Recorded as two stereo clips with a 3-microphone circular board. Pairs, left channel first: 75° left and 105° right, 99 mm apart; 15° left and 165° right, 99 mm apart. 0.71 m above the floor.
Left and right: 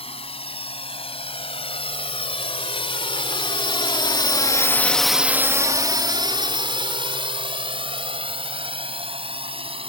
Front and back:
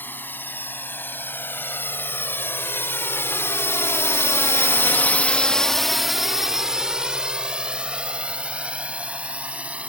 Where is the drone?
85° left; by 9.9 s 90° right.